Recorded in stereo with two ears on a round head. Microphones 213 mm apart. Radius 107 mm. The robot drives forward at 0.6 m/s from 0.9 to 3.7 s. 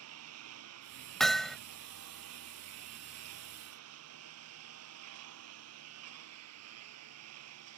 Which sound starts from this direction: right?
A lawn mower, at 0.0 s.